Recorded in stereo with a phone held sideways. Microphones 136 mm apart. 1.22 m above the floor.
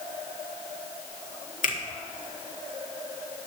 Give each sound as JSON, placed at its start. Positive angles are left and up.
{"t": 1.6, "sound": "a finger snap", "side_deg": 70, "distance_m": 1.3}